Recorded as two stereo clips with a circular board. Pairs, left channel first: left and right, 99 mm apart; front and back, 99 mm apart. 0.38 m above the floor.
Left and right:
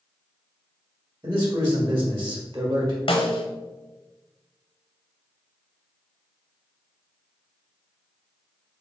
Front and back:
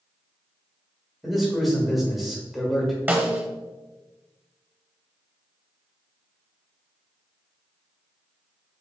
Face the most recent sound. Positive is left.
turn(degrees=110)